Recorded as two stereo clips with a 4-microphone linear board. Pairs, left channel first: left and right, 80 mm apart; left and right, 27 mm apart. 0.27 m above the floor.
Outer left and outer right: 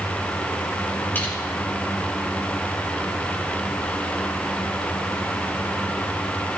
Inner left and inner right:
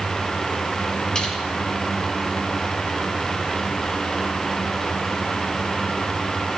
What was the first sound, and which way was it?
Crushing, 25° left (ahead or behind).